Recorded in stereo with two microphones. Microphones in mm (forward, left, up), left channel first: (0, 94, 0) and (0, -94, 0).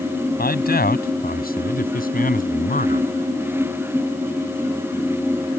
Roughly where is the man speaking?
Left.